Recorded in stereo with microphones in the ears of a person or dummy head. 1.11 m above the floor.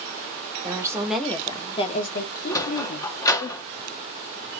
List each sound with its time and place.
0.6 s a woman speaking: 20° right (ahead or behind), 1.0 m; by 3.5 s 70° left (ahead or behind), 1.6 m
2.5 s a sliding door: 20° left (ahead or behind), 0.7 m